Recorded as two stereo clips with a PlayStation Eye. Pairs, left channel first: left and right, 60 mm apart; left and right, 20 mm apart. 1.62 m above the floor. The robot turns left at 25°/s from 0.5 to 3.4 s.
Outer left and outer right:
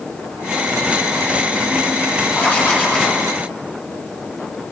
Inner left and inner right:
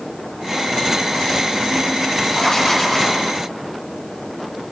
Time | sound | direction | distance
2.3 | writing | 35° left (ahead or behind) | 5 m